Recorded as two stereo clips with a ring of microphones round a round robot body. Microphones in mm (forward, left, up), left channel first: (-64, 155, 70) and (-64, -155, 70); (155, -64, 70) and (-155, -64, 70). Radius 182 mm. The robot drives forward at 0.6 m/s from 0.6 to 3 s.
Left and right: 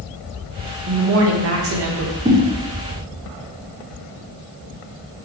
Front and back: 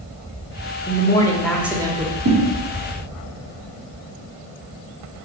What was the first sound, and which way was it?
A woman speaking, 60° right.